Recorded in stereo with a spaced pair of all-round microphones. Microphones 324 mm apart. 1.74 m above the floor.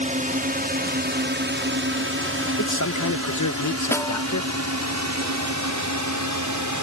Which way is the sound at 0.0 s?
25° right (ahead or behind).